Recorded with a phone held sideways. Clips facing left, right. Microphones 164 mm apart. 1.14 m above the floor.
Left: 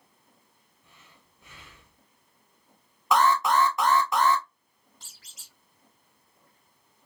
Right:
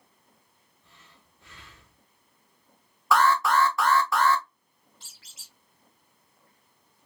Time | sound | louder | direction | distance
0.8 | breathing | even | 20° left (ahead or behind) | 2.5 m
3.1 | an alarm | even | 20° left (ahead or behind) | 0.8 m
5.0 | a squeak | left 1 dB | 40° left (ahead or behind) | 2.5 m